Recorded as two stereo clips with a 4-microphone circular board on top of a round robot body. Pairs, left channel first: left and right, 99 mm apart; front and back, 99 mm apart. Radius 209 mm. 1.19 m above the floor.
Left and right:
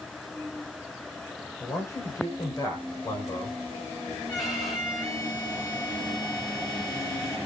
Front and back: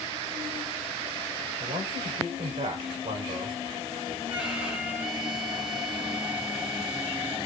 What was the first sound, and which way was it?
A man speaking, 155° left.